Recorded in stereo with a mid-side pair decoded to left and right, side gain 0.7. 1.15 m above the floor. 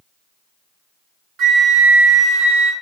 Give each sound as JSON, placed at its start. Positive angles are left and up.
{"t": 1.4, "sound": "a flute", "azimuth_deg": -50, "distance_m": 0.7}